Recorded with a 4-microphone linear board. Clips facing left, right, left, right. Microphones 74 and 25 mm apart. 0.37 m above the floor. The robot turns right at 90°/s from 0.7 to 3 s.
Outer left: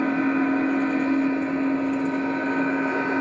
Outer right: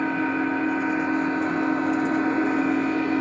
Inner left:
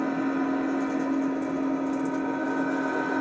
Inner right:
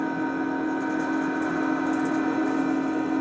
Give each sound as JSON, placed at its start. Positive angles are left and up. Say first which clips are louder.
{"t": 0.0, "sound": "an engine running", "louder": "outer left 2 dB, even", "azimuth_deg": 175, "distance_m": 3.0}